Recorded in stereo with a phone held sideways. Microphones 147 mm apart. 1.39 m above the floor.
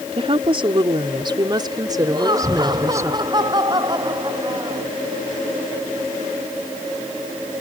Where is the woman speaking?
40° right (ahead or behind); by 3.1 s 20° right (ahead or behind).